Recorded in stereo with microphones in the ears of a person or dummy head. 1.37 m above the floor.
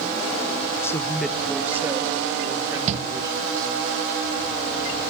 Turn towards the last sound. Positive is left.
turn(degrees=-40)  # may be behind; listen again after turning